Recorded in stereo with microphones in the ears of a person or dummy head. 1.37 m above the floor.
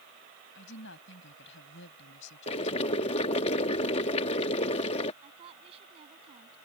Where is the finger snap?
I don't hear a finger snap.